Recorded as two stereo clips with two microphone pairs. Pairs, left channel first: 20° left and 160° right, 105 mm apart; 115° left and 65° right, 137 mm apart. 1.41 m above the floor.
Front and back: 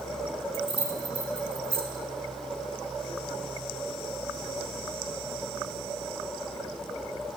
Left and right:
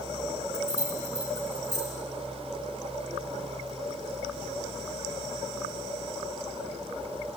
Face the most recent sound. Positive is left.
turn(degrees=180)